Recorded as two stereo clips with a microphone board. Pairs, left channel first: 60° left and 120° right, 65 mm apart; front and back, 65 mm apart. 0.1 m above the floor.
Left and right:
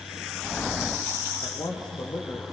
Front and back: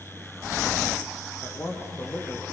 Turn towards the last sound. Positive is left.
turn(degrees=45)